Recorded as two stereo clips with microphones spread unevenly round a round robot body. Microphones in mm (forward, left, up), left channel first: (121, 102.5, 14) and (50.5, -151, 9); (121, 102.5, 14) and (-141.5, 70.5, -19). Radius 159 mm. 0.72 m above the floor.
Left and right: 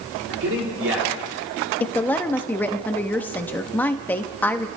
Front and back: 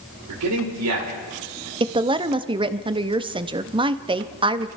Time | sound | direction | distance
0.3 | a man speaking | 150° right | 3 m
1.8 | a woman speaking | 155° left | 0.5 m